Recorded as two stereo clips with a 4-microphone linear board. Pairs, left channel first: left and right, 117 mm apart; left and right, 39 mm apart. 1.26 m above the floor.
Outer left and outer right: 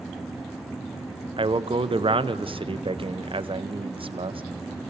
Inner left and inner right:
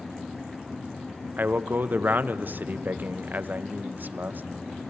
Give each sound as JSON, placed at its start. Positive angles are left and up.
{"t": 1.4, "sound": "a man speaking", "side_deg": -50, "distance_m": 0.8}